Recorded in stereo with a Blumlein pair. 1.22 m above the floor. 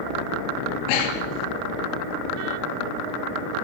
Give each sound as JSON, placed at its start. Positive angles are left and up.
{"t": 0.9, "sound": "breathing", "azimuth_deg": 45, "distance_m": 4.0}